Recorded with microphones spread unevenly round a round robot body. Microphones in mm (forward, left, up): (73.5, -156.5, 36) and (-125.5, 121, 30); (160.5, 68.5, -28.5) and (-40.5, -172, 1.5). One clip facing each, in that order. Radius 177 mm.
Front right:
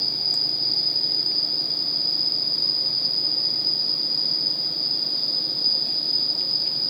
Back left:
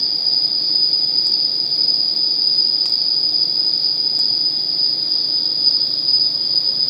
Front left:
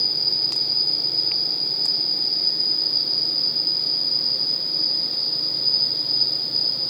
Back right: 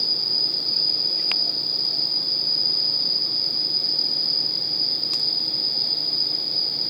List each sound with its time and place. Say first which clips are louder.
0.0 s an insect: back left 1 dB, even; 150° left, 1.4 m